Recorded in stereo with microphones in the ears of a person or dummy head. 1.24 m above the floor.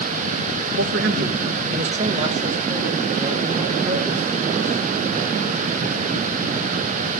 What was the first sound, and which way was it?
A man speaking, 65° right (ahead or behind).